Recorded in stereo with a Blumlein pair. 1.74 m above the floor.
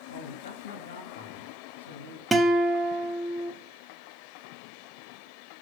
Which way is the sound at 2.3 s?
5° right.